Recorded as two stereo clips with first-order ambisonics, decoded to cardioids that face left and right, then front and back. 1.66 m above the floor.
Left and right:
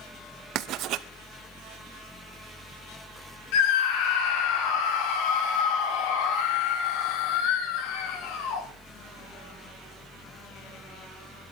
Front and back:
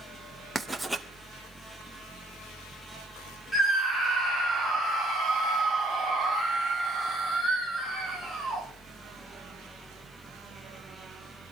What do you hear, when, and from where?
0.6 s writing: 100° right, 1.1 m
3.5 s a scream: 85° left, 6 m